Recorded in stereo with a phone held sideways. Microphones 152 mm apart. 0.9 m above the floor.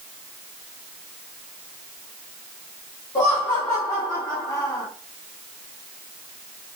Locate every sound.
3.1 s laughter: 25° left (ahead or behind), 1.8 m